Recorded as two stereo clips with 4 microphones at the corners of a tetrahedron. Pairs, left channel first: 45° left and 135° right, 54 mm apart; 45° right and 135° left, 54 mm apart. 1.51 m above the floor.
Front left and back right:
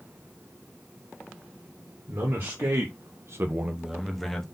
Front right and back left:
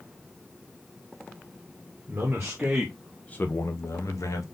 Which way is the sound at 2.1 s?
165° right.